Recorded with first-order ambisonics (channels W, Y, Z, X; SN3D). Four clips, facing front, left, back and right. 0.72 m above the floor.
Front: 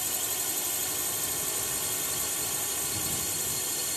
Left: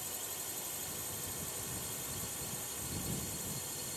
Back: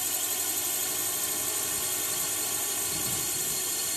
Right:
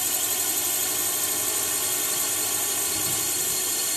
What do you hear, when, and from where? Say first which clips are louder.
0.0 s a drone: right 16 dB, back 1 dB; 95° right